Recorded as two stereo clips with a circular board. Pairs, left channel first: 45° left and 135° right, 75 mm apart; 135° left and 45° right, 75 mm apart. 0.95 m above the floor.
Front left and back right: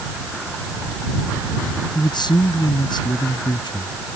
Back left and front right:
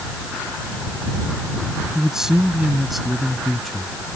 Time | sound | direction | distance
1.9 | a man speaking | 35° left | ?